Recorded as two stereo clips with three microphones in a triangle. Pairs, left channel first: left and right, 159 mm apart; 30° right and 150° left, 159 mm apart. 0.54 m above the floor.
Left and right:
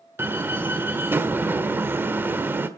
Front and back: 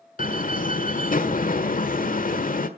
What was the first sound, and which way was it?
A door slam, 15° right.